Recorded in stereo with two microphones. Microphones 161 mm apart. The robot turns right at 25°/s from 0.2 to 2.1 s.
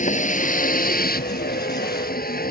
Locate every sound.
0.0 s a vehicle: 55° left; by 2.5 s 100° left